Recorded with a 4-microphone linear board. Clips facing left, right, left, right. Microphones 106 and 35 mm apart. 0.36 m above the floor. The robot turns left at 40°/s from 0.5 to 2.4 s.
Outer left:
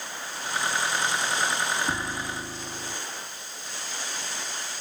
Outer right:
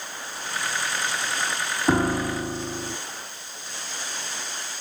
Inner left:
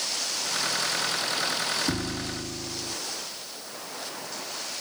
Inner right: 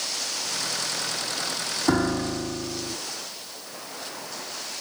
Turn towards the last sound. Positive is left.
turn(degrees=-40)  # may be behind; listen again after turning